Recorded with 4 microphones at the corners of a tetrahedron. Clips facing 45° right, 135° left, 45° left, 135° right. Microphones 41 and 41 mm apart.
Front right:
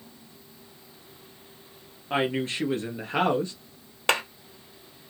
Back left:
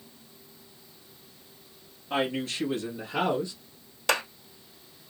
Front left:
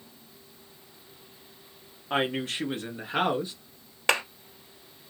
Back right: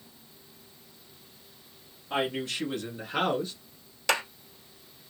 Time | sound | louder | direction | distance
2.1 | a woman speaking | front right 2 dB, front left 2 dB | 5° left | 1.5 m
4.1 | a clap | front right 2 dB, front left 2 dB | straight ahead | 2 m